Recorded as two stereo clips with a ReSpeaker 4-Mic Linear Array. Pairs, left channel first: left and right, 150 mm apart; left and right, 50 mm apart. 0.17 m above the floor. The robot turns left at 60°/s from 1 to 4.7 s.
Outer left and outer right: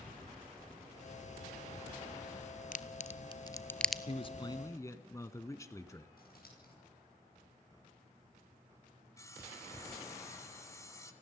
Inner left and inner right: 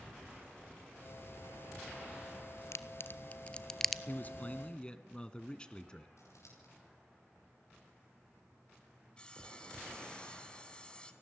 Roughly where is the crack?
Left.